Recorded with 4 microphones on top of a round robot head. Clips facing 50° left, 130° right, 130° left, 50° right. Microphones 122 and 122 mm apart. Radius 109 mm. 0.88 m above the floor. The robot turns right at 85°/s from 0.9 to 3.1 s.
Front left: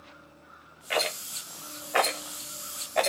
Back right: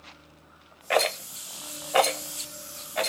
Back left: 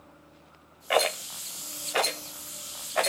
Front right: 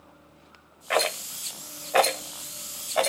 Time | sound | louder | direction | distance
0.9 | a rattle | back right 6 dB, back left 1 dB | 150° right | 1.5 m